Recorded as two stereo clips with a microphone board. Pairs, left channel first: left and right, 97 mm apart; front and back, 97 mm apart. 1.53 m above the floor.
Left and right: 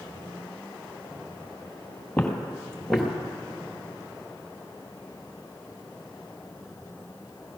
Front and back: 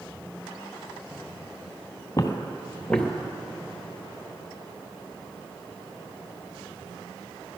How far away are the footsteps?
About 1.9 m.